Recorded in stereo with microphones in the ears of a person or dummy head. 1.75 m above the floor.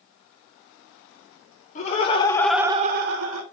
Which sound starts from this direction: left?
Laughter, at 1.8 s.